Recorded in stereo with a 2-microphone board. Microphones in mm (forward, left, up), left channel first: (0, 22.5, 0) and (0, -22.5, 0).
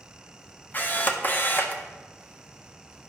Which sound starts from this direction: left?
A camera shutter, at 0.7 s.